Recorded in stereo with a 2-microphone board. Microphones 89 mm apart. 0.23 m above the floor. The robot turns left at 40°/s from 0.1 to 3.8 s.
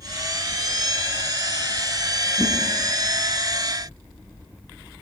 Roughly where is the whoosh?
Left.